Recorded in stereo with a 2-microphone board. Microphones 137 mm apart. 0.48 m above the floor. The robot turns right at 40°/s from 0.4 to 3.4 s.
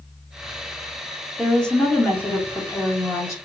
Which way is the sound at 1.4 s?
5° left (ahead or behind).